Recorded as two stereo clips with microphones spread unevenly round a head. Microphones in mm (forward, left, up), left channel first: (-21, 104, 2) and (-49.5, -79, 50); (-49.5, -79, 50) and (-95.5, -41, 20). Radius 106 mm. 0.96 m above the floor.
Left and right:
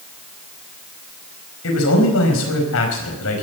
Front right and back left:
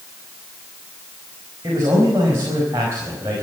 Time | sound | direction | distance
1.6 | a man speaking | 75° left | 4.5 m